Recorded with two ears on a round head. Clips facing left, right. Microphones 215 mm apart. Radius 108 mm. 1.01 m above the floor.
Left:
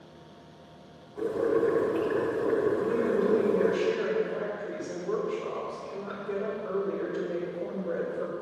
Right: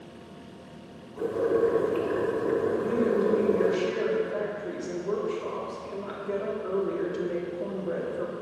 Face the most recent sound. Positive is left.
turn(degrees=-80)